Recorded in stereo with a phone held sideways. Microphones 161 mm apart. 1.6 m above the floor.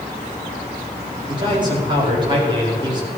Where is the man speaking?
30° right (ahead or behind), 5 m.